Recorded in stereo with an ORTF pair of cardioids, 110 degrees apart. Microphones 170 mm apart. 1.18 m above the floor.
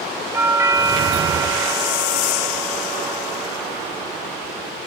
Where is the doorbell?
15° right, 3 m.